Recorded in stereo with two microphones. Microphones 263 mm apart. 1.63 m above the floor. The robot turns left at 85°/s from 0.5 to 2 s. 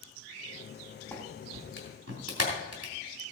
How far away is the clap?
About 3 m.